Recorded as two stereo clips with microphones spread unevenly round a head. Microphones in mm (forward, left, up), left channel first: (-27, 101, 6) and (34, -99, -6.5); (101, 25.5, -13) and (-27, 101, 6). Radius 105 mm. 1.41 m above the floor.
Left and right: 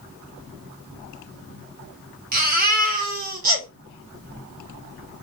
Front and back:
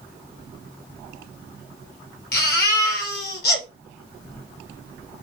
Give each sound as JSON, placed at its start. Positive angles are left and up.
{"t": 2.3, "sound": "a baby crying", "azimuth_deg": -25, "distance_m": 2.5}